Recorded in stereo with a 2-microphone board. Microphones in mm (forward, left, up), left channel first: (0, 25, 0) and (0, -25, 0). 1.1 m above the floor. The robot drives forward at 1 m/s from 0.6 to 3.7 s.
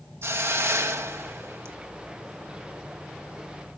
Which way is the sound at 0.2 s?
65° right (ahead or behind).